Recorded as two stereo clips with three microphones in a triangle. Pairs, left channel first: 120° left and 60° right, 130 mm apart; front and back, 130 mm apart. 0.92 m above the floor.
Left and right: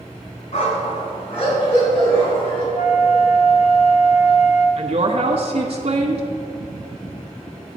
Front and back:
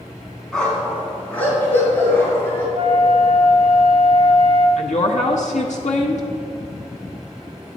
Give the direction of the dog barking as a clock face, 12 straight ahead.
9 o'clock.